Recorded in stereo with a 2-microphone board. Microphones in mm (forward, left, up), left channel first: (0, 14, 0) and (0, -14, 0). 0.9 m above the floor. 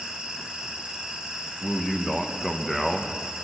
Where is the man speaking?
15° left (ahead or behind), 0.9 m.